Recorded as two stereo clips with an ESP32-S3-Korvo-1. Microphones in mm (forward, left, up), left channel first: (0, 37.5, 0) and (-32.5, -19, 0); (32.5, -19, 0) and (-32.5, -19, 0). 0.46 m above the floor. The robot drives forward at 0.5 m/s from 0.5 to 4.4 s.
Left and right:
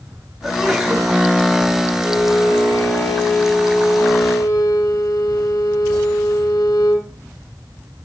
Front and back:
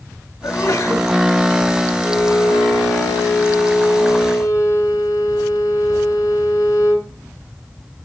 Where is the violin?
30° left, 7.5 m; by 7.1 s 35° left, 6.5 m.